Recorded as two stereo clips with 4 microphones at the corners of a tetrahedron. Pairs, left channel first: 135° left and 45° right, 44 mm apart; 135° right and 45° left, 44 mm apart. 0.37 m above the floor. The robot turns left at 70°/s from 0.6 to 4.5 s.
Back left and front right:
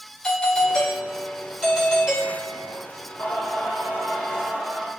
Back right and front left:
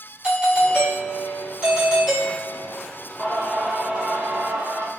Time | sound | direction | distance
0.2 | a doorbell | 80° left | 1.3 m
3.2 | singing | 150° left | 0.7 m